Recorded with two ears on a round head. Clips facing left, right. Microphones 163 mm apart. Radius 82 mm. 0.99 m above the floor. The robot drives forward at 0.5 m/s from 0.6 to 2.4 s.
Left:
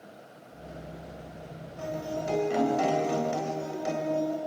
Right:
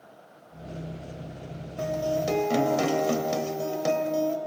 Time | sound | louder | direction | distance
1.8 | a guitar | right 6 dB | 75° right (ahead or behind) | 3 m